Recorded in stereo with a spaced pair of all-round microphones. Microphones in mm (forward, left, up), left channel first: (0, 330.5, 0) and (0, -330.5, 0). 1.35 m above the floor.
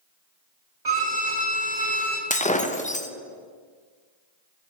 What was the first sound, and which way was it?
A violin, 80° right.